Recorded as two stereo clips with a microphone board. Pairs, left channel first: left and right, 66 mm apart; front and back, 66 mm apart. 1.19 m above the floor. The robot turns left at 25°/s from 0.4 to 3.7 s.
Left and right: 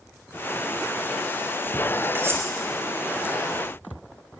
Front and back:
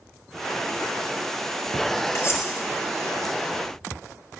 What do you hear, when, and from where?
2.1 s cutlery clinking: 40° right, 2 m; by 2.5 s 45° right, 2 m